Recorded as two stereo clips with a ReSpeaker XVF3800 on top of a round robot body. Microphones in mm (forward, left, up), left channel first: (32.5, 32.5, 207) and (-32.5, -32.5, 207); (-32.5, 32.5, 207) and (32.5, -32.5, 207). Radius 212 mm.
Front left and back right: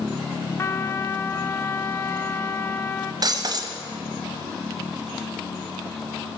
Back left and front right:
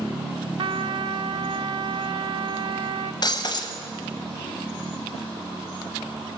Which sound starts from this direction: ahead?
A trumpet, at 0.6 s.